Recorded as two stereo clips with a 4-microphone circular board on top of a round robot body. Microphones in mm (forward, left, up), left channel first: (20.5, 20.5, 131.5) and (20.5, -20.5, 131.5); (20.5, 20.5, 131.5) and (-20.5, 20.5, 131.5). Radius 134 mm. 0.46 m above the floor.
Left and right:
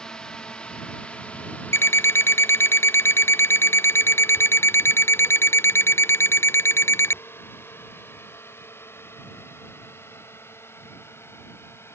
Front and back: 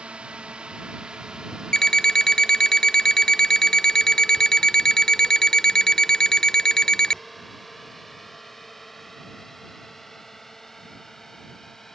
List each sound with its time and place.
0.0 s a drone: 145° left; by 11.9 s 80° left
1.7 s an alarm clock: 75° left